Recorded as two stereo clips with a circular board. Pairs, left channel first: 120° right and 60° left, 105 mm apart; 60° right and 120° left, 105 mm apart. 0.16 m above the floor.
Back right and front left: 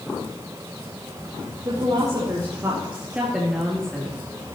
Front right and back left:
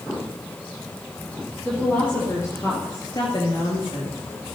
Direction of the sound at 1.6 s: 15° left.